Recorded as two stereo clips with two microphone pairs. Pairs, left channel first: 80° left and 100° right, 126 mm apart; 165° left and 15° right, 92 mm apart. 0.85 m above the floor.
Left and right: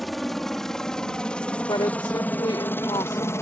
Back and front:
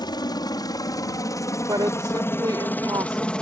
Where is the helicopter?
165° left; by 3.4 s 100° left.